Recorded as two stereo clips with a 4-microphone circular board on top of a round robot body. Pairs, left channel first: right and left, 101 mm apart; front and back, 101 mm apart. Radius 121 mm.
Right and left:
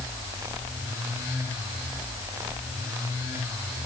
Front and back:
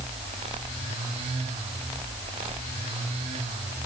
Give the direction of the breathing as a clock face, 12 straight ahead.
No breathing in this recording.